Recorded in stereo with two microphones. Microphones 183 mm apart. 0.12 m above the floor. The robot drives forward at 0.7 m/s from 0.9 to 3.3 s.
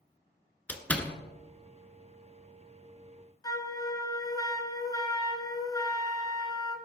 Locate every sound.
0.7 s a door slam: 10° left (ahead or behind), 1.3 m
3.4 s a flute: 20° left (ahead or behind), 1.5 m